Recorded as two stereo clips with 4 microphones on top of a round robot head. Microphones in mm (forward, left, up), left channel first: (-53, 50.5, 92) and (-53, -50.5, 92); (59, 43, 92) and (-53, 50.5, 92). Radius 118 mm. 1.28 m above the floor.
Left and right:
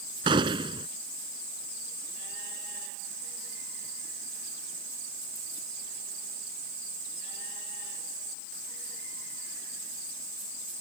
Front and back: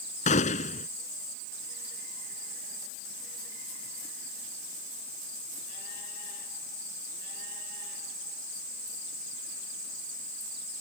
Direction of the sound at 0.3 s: 35° right.